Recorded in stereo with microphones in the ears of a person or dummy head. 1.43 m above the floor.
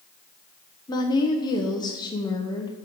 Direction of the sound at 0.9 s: 20° left (ahead or behind).